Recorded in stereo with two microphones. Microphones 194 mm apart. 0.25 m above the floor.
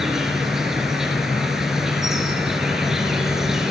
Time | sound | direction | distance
0.0 | an insect | 5° right (ahead or behind) | 1.1 m